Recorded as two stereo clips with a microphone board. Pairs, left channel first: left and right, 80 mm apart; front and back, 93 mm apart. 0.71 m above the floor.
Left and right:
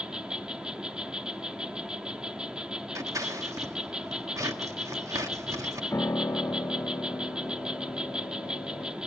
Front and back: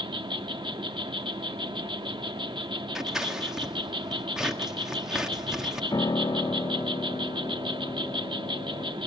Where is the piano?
35° left, 0.7 m.